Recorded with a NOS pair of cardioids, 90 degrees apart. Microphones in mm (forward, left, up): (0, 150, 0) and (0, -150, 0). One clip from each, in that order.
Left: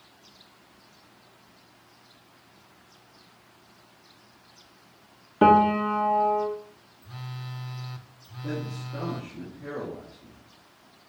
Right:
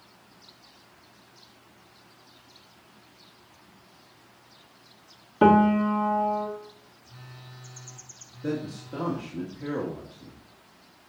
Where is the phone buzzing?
65° left, 0.9 m.